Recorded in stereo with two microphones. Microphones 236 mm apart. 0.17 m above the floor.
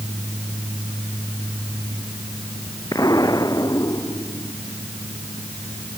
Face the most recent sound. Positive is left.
turn(degrees=15)  # may be behind; listen again after turning